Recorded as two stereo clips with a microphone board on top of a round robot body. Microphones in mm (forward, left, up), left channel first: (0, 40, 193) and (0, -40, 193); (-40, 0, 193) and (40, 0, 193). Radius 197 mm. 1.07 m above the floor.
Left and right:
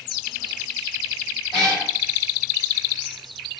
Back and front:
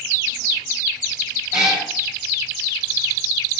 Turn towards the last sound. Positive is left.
turn(degrees=50)